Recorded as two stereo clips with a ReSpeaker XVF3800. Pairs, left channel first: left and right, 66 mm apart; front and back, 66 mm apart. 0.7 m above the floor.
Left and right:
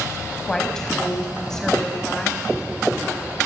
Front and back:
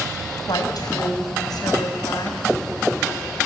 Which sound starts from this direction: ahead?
A woman speaking, at 0.4 s.